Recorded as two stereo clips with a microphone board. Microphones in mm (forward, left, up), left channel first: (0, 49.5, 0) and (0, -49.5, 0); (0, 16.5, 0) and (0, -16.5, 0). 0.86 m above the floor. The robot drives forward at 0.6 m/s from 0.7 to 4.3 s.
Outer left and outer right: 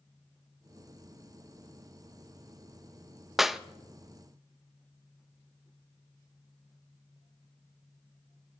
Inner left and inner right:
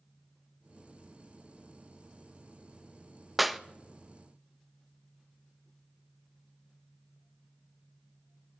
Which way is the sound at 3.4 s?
5° right (ahead or behind).